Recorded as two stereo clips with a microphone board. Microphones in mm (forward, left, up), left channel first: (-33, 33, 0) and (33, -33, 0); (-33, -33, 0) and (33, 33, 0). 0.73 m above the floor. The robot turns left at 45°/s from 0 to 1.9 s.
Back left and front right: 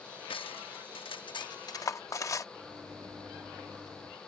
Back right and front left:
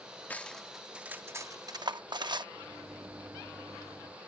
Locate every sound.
0.3 s cutlery clinking: 155° left; by 2.5 s 80° left
2.5 s a microwave: 5° right